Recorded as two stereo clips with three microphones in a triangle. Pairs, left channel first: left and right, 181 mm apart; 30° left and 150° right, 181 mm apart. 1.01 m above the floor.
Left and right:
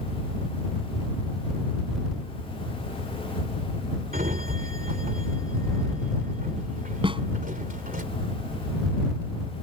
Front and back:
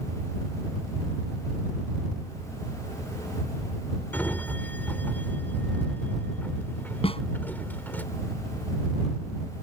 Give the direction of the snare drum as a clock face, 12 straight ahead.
1 o'clock.